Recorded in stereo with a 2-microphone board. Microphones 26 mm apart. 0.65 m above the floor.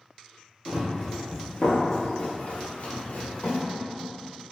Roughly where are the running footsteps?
Centre.